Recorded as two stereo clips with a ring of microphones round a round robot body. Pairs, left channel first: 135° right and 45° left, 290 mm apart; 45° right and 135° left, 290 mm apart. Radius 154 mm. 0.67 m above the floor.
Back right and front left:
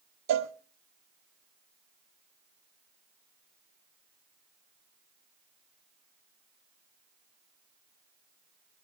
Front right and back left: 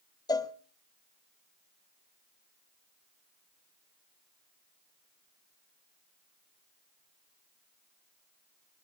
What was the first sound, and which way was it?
A cowbell, 30° left.